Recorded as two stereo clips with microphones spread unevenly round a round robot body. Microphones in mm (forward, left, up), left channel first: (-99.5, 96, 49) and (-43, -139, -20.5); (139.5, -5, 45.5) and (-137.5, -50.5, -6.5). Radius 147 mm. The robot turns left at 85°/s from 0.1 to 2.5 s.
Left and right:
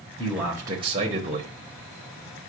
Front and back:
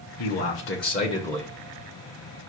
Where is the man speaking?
10° left, 1.0 m; by 1.5 s 100° right, 1.0 m.